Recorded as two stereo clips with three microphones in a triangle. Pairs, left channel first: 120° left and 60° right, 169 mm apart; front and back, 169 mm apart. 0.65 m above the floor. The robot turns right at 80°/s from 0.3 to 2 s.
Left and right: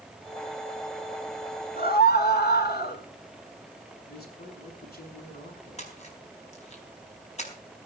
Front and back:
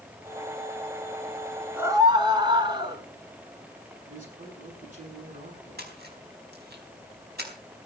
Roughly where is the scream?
Left.